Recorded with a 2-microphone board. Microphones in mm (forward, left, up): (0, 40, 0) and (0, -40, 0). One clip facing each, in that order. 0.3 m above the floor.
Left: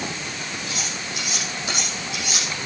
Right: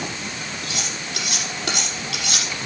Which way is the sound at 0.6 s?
75° right (ahead or behind).